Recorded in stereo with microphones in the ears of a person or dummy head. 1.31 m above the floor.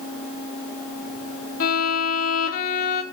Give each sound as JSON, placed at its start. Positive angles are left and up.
{"t": 1.6, "sound": "a violin", "side_deg": 50, "distance_m": 1.6}